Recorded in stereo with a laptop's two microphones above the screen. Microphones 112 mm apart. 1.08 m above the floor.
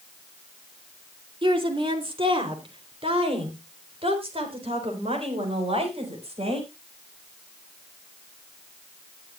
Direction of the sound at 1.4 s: 45° right (ahead or behind).